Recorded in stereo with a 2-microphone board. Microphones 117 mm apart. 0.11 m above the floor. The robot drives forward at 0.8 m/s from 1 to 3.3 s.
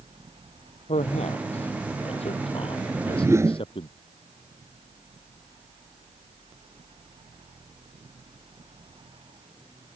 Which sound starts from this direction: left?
A man speaking, at 0.9 s.